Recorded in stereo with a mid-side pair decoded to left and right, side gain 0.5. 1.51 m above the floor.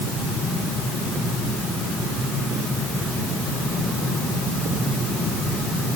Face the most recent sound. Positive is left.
No sound to turn to.